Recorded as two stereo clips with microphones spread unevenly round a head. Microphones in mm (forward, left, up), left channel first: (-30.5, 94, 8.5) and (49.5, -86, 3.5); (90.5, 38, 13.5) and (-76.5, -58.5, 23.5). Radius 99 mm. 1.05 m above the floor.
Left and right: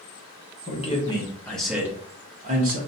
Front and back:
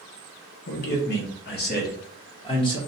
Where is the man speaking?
55° left, 1.1 m; by 2.8 s 35° right, 1.0 m.